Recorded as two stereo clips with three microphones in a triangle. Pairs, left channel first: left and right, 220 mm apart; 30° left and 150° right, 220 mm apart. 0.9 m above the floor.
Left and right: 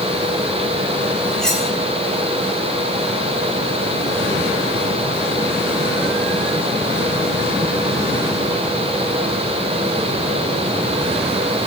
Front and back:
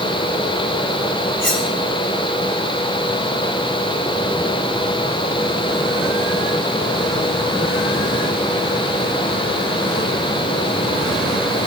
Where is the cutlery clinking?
5° left, 4.5 m.